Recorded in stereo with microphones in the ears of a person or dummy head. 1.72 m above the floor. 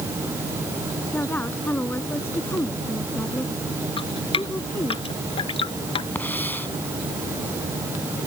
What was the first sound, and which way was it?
A woman speaking, 10° left (ahead or behind).